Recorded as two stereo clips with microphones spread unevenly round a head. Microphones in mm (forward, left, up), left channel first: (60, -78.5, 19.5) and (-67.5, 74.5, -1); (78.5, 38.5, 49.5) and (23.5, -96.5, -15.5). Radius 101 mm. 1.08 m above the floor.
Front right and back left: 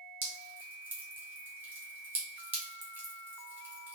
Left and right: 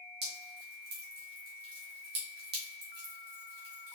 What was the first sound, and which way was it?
Dripping, 150° right.